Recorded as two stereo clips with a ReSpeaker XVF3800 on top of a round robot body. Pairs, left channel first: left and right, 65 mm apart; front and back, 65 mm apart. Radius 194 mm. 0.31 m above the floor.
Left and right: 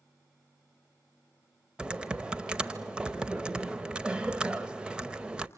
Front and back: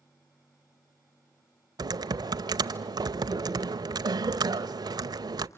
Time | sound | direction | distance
1.8 | typing on a keyboard | 165° right | 0.6 m